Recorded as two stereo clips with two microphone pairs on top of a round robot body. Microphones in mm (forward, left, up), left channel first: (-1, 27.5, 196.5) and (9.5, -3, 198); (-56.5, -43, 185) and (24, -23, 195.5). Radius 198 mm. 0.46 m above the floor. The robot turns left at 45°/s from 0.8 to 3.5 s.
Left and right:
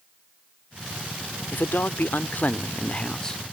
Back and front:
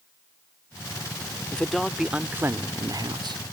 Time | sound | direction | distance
1.5 | a man speaking | 120° left | ?